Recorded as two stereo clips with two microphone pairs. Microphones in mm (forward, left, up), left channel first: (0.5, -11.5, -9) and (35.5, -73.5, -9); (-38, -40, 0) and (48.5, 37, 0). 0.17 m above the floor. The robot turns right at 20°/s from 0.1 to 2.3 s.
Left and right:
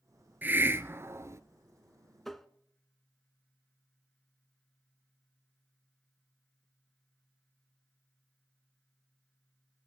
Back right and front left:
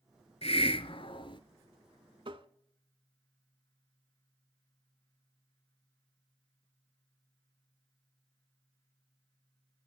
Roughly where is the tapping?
Ahead left.